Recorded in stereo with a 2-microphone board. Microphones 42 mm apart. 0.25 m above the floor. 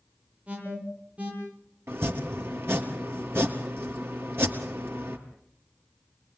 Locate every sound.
0.5 s an alarm: 30° right (ahead or behind), 10 m
1.9 s chopping: 70° right (ahead or behind), 3 m